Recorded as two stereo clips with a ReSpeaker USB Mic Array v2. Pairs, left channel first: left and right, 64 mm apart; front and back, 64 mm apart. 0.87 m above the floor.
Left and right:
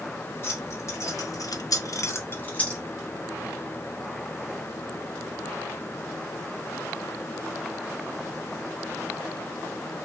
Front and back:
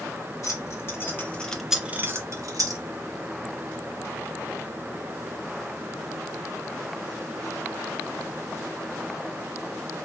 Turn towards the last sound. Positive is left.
turn(degrees=160)